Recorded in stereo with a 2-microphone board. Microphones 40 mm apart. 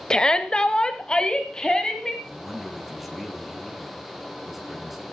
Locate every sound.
0.1 s a shout: 20° left (ahead or behind), 0.9 m
2.2 s a man speaking: centre (ahead or behind), 2.5 m